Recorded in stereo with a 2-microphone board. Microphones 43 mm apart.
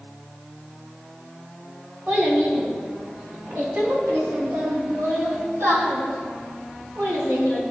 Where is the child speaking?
55° right (ahead or behind), 3 m; by 7.6 s 80° right, 4 m.